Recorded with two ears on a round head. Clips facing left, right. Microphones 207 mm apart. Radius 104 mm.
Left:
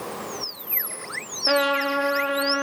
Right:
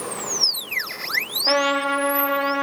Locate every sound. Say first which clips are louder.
1.5 s a trumpet: right 1 dB; 5° left (ahead or behind), 2.5 m